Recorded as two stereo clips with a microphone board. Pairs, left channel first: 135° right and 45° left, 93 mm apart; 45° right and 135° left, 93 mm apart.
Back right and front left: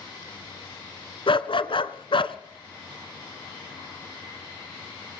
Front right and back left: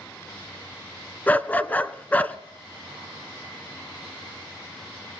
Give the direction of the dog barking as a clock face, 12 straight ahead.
4 o'clock.